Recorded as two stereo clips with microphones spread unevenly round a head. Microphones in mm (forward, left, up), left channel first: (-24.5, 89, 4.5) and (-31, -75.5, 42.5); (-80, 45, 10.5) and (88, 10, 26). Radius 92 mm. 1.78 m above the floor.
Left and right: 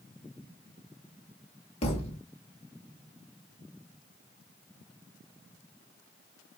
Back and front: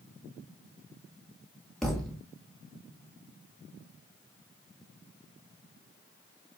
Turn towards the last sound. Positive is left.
turn(degrees=70)